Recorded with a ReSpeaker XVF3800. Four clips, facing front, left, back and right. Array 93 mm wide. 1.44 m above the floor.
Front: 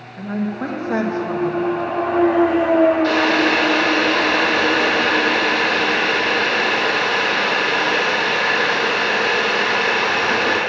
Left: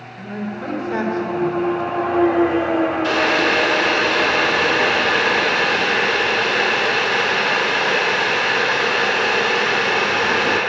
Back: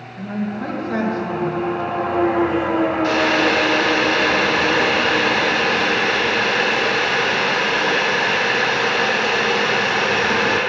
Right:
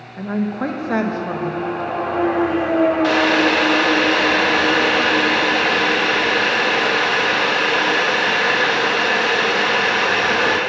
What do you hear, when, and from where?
0.2 s a woman speaking: 75° right, 1.2 m
3.0 s boiling: 100° right, 2.5 m